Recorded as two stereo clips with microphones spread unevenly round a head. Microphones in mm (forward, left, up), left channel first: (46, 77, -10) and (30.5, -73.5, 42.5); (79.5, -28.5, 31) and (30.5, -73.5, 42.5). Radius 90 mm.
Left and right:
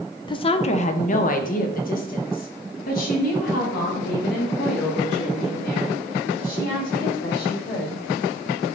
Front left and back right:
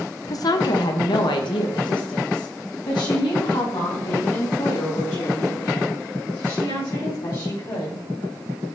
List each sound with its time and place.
0.3 s a woman speaking: 10° left, 0.6 m; by 8.0 s 55° left, 4.5 m